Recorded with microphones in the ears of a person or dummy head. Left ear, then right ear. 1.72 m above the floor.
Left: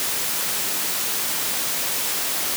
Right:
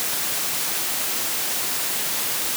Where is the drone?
No drone in this recording.